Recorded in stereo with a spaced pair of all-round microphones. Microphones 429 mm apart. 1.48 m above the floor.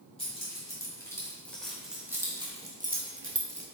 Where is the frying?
No frying in this recording.